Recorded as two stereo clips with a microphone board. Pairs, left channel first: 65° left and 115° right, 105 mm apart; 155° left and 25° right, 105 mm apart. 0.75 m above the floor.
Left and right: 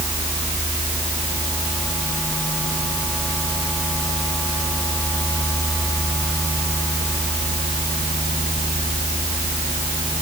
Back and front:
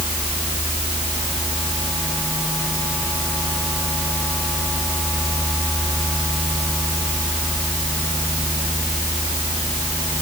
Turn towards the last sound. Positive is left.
No sound to turn to.